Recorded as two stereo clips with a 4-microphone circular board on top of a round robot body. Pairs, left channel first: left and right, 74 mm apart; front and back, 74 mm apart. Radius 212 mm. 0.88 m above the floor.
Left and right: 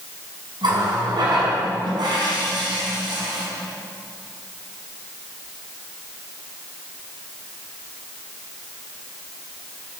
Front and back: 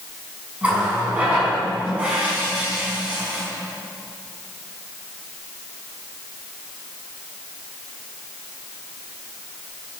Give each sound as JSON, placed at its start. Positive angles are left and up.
{"t": 0.6, "sound": "a running tap", "azimuth_deg": -105, "distance_m": 6.0}